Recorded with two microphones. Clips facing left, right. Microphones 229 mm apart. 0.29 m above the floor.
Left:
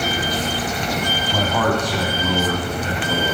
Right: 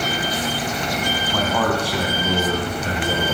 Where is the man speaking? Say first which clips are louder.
Left 1 dB; 10° left (ahead or behind), 2 m; by 3.3 s 50° right (ahead or behind), 2.5 m.